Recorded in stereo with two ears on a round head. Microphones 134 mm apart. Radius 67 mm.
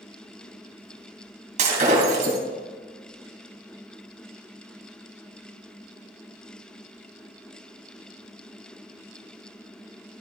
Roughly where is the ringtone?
I don't hear a ringtone.